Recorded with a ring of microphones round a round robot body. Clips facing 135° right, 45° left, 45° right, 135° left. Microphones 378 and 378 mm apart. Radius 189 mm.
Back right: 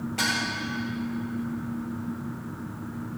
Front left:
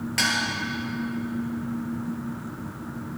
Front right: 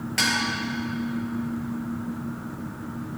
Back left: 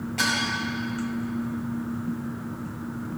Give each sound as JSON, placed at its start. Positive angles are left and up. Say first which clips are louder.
{"t": 0.2, "sound": "dishes clattering", "louder": "front left 1 dB, front right 2 dB", "azimuth_deg": 0, "distance_m": 5.0}